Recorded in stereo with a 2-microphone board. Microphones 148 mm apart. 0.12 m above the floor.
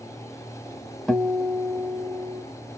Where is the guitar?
5° left (ahead or behind), 0.9 m.